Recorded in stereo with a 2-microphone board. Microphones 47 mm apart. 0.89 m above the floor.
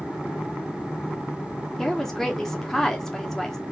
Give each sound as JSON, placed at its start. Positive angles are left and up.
{"t": 1.8, "sound": "a woman speaking", "side_deg": 10, "distance_m": 0.7}